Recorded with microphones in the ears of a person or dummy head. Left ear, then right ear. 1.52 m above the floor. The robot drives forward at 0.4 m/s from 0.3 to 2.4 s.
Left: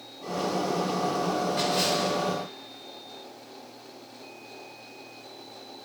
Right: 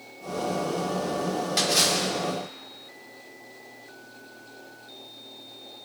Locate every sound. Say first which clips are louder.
1.6 s a splash: right 6 dB; 50° right (ahead or behind), 2 m; by 2.1 s 55° right (ahead or behind), 2 m